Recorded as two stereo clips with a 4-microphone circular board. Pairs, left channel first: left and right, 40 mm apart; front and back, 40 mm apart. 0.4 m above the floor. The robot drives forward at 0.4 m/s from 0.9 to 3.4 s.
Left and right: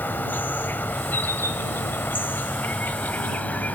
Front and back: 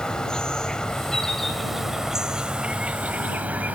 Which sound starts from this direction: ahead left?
An insect, at 0.0 s.